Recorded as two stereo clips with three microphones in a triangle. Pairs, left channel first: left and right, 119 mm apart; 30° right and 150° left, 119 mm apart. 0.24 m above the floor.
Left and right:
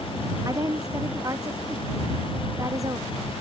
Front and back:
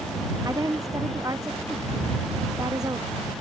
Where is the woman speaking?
150° right.